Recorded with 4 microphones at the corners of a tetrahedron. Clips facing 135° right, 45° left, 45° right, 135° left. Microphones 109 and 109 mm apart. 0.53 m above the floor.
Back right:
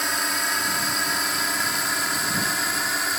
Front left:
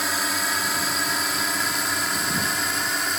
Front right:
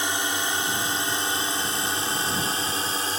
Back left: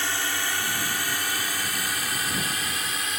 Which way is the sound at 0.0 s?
40° right.